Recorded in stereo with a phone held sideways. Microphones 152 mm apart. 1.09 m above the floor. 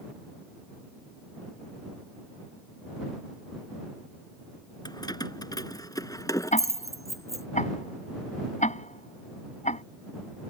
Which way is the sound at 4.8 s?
25° left (ahead or behind).